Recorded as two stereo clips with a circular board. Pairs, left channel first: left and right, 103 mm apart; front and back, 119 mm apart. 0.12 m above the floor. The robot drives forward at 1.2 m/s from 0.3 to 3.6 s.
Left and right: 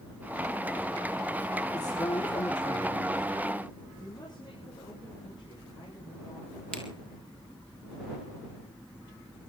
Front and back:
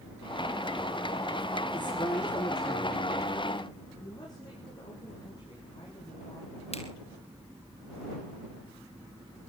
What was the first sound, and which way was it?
A man speaking, 45° left.